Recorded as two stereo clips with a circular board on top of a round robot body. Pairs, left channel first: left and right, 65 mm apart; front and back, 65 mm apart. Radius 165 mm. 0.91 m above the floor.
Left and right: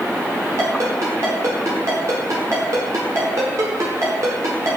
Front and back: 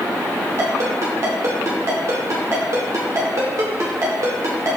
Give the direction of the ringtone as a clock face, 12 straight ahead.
5 o'clock.